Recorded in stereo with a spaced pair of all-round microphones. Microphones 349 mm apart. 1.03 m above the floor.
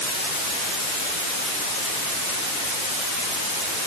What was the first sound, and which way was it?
Only background noise.